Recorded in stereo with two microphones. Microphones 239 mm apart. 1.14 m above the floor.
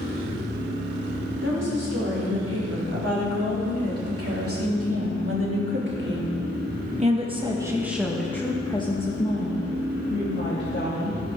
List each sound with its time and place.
1.4 s a woman speaking: 75° right (ahead or behind), 5 m; by 11.2 s 50° left (ahead or behind), 3 m